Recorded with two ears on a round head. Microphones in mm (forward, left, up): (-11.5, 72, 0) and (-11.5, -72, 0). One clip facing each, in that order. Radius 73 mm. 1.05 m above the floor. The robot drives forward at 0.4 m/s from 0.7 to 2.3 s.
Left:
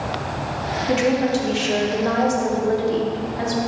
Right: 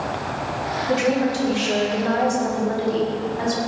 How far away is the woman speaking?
About 3 m.